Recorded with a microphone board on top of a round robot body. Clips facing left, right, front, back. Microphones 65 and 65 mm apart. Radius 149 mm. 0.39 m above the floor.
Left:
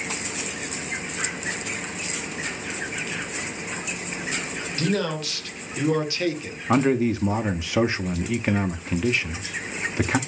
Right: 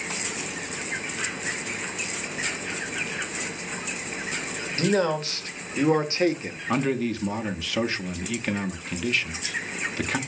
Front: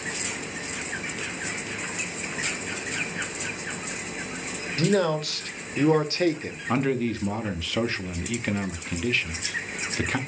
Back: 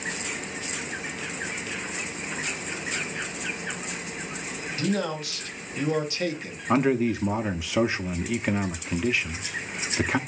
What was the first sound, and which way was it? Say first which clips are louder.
A man speaking: right 3 dB, front 5 dB; 30° right.